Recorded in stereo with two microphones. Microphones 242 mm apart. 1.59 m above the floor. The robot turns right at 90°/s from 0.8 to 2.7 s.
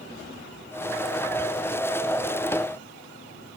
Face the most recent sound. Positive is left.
No sound to turn to.